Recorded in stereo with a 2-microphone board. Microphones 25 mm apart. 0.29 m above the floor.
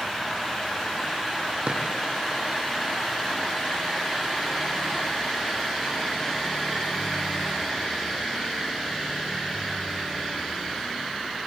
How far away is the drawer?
About 5 m.